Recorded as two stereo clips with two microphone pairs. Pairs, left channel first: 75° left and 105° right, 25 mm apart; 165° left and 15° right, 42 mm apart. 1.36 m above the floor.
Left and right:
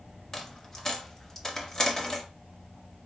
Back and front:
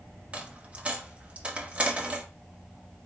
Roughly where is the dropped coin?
Ahead left.